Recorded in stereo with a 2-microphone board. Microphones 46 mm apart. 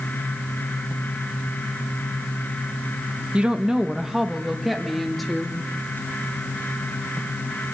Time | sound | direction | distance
3.3 | a woman speaking | 30° right (ahead or behind) | 1.3 m